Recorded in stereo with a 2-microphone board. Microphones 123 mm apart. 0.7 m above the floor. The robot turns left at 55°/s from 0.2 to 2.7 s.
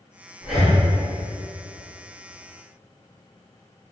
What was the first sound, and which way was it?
Breathing, 5° right (ahead or behind).